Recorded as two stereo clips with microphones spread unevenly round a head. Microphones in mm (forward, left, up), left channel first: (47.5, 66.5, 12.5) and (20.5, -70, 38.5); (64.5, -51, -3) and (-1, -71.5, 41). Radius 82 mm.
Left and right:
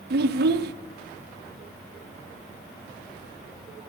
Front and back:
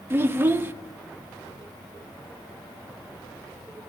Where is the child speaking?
95° right, 0.7 m.